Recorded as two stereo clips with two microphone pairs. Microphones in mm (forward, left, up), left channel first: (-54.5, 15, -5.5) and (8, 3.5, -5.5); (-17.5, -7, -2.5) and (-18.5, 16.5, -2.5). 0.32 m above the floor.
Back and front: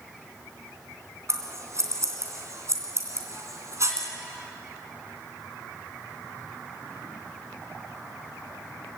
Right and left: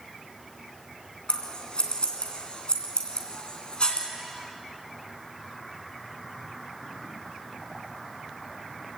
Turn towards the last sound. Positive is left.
turn(degrees=-45)